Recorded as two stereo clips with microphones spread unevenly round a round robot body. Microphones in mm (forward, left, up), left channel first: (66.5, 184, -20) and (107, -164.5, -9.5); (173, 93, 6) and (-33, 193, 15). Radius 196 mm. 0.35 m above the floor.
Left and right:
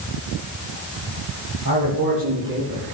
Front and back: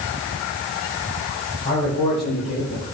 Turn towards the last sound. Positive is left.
turn(degrees=-25)